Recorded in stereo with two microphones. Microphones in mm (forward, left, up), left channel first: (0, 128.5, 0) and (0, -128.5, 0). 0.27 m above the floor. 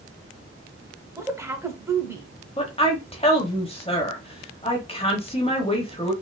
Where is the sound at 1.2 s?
10° right (ahead or behind), 1.0 m.